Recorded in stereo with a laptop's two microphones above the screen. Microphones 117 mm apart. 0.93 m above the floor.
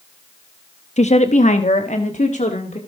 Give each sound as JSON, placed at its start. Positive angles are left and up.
{"t": 1.0, "sound": "a woman speaking", "side_deg": 65, "distance_m": 0.8}